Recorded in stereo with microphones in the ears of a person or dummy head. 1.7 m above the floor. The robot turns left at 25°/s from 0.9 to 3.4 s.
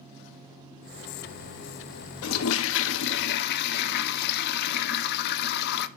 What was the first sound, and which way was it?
A toilet flushing, 85° left.